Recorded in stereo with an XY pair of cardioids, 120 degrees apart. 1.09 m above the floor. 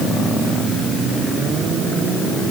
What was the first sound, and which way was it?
Only background noise.